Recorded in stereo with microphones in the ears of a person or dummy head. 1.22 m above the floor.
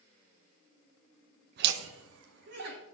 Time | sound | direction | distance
1.6 | laughter | 60° right (ahead or behind) | 0.8 m